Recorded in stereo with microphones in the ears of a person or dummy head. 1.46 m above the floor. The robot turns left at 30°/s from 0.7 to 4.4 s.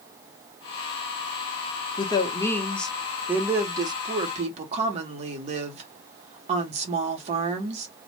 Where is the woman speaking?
25° left, 0.7 m; by 7.9 s 50° right, 0.7 m.